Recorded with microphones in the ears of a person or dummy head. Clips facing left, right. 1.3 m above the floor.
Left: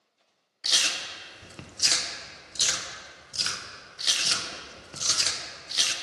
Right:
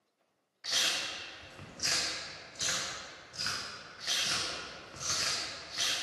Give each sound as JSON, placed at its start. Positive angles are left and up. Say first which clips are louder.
{"t": 0.6, "sound": "chewing", "louder": "left 2 dB", "side_deg": 50, "distance_m": 0.5}